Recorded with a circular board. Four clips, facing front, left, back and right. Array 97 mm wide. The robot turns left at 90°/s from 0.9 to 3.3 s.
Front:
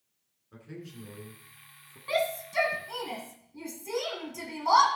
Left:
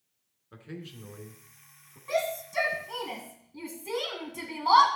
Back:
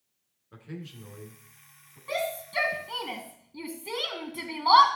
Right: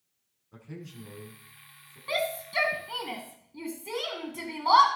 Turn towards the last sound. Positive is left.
turn(degrees=-175)